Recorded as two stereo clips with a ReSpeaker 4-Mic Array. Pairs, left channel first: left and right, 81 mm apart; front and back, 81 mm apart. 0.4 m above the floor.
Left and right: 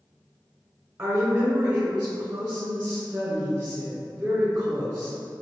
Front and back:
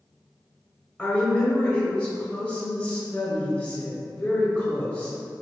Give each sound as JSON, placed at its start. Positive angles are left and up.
{"t": 1.0, "sound": "a woman speaking", "azimuth_deg": -55, "distance_m": 0.9}